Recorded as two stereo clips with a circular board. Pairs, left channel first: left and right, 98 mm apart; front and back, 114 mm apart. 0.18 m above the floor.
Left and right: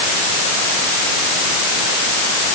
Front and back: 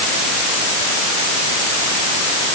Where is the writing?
No writing in this recording.